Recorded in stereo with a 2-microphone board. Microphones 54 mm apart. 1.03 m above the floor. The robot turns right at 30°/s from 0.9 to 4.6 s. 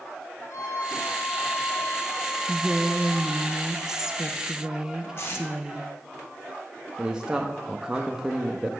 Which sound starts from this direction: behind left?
A violin, at 0.5 s.